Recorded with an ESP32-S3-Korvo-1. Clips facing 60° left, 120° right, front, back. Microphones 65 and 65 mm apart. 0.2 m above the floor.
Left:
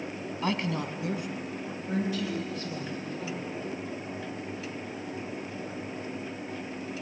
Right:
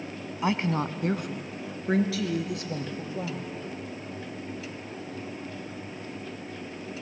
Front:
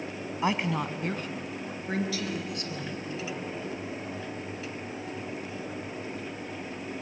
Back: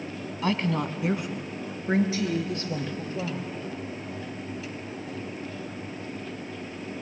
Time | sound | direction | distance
0.4 | a woman speaking | 55° right | 1.1 m